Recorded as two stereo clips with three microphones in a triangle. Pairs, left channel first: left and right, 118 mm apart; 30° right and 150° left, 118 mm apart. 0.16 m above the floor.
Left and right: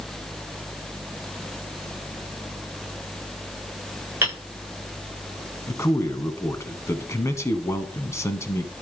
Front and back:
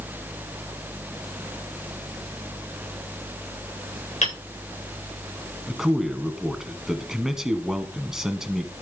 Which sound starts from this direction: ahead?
Hammering, at 4.2 s.